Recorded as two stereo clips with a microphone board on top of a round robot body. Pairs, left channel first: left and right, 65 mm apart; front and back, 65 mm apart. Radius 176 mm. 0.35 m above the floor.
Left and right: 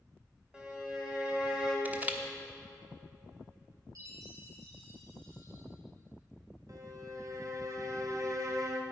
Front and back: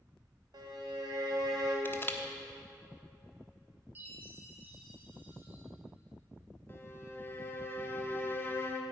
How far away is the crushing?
About 1.2 m.